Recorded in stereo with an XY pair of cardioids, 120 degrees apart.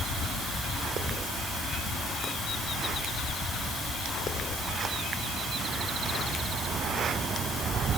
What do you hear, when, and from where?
Only background noise.